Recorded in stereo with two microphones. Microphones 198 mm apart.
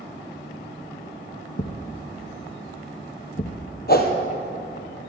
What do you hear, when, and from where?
1.6 s a thud: 50° left (ahead or behind), 1.2 m
3.9 s a whoosh: 50° left (ahead or behind), 1.8 m